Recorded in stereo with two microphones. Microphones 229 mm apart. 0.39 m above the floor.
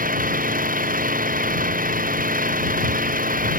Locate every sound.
0.0 s an engine running: 35° right (ahead or behind)